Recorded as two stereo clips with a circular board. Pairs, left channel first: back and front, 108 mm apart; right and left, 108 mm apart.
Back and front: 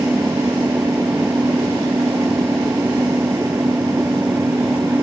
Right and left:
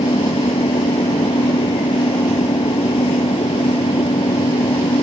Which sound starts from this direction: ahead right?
An engine running, at 0.0 s.